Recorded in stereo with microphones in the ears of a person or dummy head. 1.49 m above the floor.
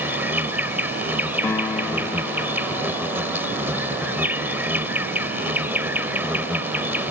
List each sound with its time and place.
0.0 s an insect: 10° right (ahead or behind)
1.4 s a piano: 15° left (ahead or behind)